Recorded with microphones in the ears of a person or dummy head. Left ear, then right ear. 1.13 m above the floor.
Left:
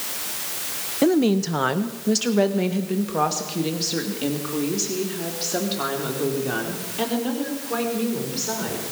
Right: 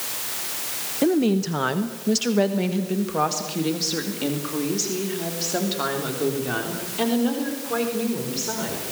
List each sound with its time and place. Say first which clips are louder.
1.0 s a woman speaking: left 2 dB; 15° left (ahead or behind), 0.8 m; by 8.8 s 5° right (ahead or behind), 4.5 m